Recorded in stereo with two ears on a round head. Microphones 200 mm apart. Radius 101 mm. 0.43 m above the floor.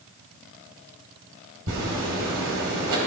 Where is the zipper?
65° right (ahead or behind), 2.5 m.